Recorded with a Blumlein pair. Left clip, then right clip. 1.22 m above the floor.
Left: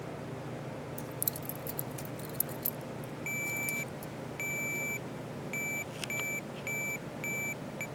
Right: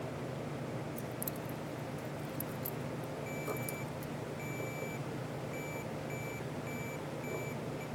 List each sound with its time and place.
1.0 s keys jangling: 10° left; by 4.1 s 75° left
3.3 s a ringtone: 55° left